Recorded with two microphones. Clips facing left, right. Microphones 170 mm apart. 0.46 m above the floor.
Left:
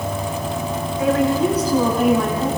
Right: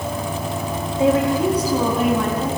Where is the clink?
No clink in this recording.